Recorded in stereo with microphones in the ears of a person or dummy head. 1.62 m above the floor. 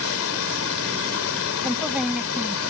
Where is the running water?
85° left.